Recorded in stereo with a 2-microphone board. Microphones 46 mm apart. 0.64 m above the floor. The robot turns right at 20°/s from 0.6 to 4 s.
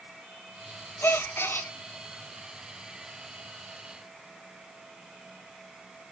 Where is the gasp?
60° left (ahead or behind), 1.1 m; by 1.7 s 55° left (ahead or behind), 1.1 m.